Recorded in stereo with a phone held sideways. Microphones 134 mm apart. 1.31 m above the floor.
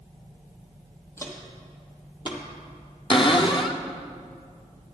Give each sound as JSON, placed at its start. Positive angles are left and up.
{"t": 1.2, "sound": "footsteps", "side_deg": 20, "distance_m": 1.8}
{"t": 3.1, "sound": "a cupboard door", "side_deg": 40, "distance_m": 0.7}